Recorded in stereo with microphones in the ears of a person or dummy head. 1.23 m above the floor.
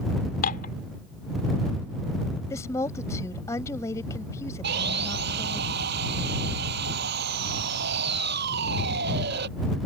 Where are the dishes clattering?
50° left (ahead or behind).